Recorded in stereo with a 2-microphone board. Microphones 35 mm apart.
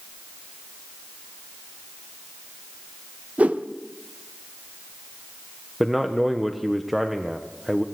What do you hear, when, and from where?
3.4 s a whoosh: 45° right (ahead or behind), 0.7 m
5.8 s a man speaking: centre (ahead or behind), 0.9 m